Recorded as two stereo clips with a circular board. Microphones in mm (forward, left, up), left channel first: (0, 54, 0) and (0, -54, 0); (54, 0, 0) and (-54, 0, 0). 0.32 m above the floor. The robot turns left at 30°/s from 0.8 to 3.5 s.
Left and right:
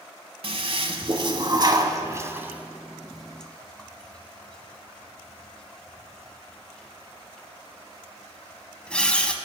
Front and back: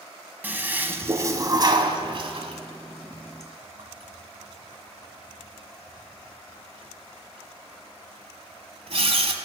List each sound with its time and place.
0.4 s a toilet flushing: 110° right, 1.1 m; by 9.3 s 170° left, 1.1 m